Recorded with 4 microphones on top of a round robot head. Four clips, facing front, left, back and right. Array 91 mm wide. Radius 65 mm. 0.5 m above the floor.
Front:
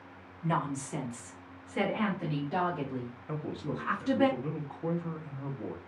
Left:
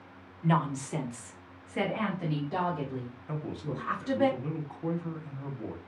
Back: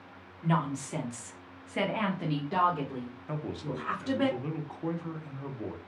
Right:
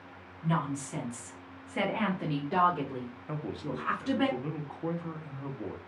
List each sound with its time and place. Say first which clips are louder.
0.4 s a woman speaking: left 3 dB, back 2 dB; 100° left, 1.2 m; by 4.3 s 120° right, 2 m
3.3 s a man speaking: even, even; 145° right, 0.7 m